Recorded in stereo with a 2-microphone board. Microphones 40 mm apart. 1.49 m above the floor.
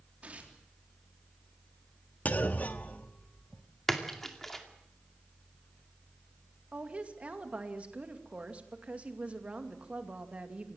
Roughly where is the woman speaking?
Right.